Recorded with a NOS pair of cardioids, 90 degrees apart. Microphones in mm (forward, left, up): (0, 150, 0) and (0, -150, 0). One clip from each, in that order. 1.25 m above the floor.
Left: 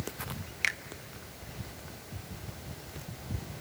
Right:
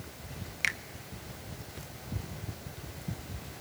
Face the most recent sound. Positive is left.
turn(degrees=5)